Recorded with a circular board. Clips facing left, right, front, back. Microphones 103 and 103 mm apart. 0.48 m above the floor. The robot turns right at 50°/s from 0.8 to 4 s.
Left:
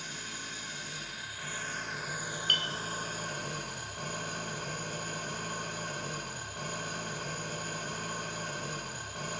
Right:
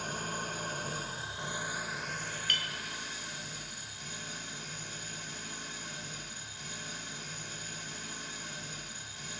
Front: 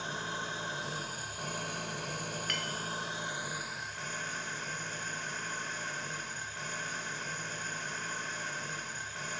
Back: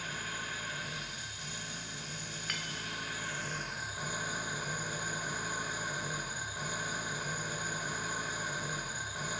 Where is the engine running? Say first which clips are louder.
Right 6 dB, front 3 dB; 60° right, 1.6 m; by 9.4 s 100° left, 1.6 m.